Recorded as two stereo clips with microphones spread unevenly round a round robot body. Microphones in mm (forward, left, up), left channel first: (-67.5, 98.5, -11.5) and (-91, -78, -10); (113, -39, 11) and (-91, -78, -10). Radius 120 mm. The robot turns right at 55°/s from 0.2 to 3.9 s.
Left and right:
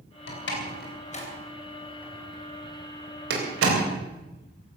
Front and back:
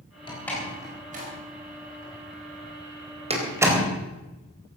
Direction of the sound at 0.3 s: 85° left.